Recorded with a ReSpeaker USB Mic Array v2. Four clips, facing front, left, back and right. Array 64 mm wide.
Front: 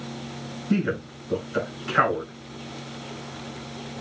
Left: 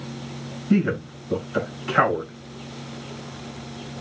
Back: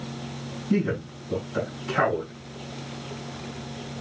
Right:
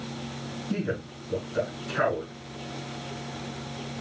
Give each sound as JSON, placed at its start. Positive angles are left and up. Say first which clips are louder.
{"t": 0.7, "sound": "a man speaking", "louder": "left 10 dB, even", "azimuth_deg": 60, "distance_m": 3.0}